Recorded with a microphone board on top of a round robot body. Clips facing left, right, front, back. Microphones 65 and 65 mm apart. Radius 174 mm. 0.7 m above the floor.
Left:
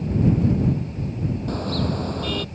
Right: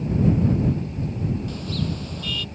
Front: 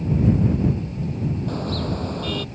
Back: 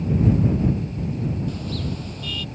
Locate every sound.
1.5 s a car horn: 45° left